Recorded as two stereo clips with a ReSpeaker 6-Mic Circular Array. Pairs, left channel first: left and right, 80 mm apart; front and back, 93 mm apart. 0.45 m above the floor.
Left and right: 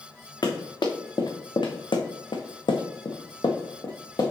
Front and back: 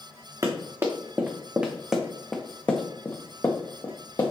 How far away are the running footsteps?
About 1.9 m.